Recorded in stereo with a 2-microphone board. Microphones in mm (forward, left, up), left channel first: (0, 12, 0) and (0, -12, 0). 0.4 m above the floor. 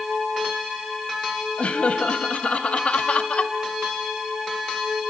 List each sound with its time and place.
1.6 s laughter: 50° left (ahead or behind), 2.5 m